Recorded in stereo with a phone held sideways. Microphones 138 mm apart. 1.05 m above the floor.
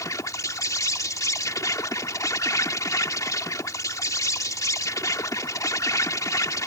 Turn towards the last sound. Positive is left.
turn(degrees=25)  # may be behind; listen again after turning